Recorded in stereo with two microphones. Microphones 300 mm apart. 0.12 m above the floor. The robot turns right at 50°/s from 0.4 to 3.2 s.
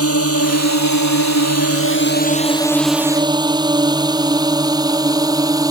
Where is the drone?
50° left (ahead or behind); by 5.7 s 10° right (ahead or behind).